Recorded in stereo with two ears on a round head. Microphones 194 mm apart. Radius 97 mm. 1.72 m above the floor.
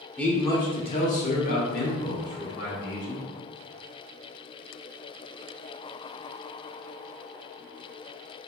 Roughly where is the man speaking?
Centre.